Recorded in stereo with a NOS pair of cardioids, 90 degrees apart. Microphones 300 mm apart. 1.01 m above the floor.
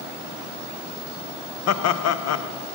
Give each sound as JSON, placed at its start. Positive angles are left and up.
{"t": 1.7, "sound": "laughter", "azimuth_deg": 65, "distance_m": 0.6}